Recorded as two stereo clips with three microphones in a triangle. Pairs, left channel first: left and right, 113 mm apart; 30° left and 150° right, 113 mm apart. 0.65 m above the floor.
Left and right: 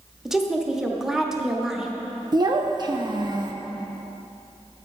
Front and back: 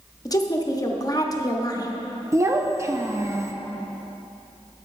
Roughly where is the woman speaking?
Ahead.